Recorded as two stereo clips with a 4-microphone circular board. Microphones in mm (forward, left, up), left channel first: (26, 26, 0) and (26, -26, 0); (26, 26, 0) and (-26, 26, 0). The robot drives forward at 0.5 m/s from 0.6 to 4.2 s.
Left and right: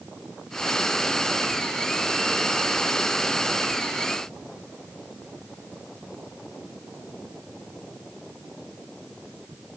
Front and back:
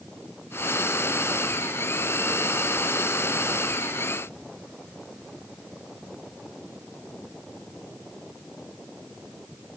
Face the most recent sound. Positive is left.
No sound to turn to.